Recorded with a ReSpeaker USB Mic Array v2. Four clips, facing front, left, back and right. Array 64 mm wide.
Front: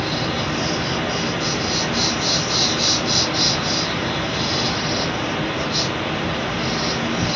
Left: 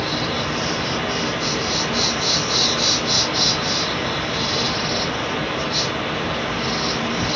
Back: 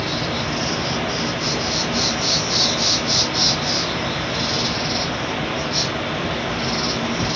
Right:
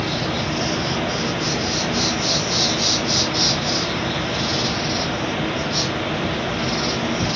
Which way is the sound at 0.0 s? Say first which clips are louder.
Even, front 1 dB; 70° left.